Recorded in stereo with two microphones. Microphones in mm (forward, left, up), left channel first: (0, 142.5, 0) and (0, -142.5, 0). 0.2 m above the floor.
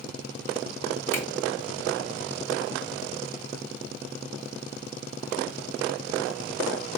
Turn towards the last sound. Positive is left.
turn(degrees=10)  # may be behind; listen again after turning